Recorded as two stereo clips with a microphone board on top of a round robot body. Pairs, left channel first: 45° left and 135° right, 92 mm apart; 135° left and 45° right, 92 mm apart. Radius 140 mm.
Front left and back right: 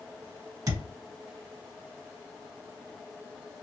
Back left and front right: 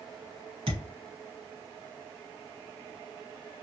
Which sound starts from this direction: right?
A thud, at 0.7 s.